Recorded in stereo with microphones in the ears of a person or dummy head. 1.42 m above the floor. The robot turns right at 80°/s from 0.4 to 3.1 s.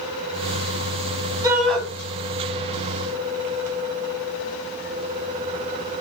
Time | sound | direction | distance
1.4 | a shout | 20° right (ahead or behind) | 1.6 m